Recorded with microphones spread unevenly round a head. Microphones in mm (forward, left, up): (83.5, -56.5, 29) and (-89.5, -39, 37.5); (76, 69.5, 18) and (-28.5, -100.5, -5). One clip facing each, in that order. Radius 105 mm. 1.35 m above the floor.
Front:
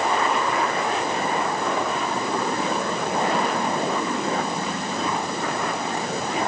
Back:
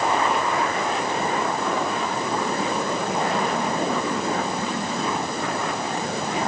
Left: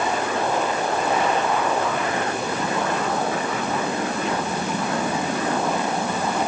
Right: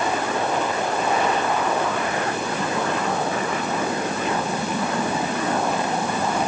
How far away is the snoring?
No snoring in this recording.